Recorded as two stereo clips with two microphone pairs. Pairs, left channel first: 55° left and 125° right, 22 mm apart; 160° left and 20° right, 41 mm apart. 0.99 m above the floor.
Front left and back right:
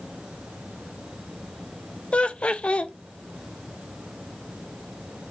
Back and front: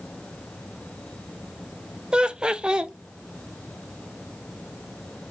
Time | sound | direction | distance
2.1 | laughter | 45° left | 0.5 m